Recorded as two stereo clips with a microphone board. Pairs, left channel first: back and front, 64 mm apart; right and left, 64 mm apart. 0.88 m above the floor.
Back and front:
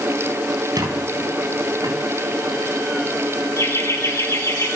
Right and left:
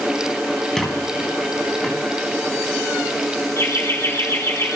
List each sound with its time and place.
0.8 s a squeak: 5° right, 3.5 m
3.6 s laughter: 135° right, 3.5 m